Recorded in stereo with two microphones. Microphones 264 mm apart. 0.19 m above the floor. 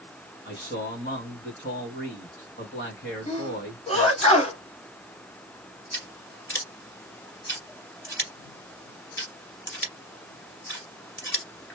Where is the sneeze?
25° left (ahead or behind), 1.6 m.